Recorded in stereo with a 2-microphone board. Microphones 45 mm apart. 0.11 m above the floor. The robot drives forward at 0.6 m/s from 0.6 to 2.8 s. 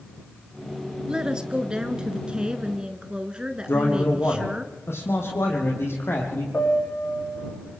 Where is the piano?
70° left (ahead or behind), 6 m.